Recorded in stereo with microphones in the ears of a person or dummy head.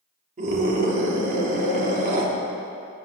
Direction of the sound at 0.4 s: 45° right (ahead or behind).